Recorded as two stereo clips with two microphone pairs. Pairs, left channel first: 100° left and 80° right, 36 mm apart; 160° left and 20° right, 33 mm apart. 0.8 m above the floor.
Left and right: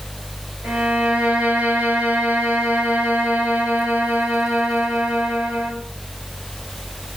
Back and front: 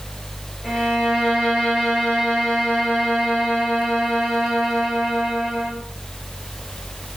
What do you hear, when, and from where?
0.6 s a violin: 125° right, 6 m